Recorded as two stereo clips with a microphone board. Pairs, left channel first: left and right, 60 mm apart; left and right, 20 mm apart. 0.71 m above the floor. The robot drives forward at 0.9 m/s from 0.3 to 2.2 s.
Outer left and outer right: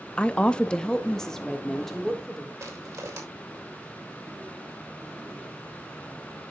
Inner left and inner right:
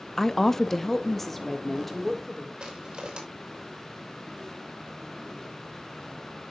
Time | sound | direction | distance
0.2 | a woman speaking | 20° left (ahead or behind) | 0.6 m
2.6 | crushing | 60° right (ahead or behind) | 3.5 m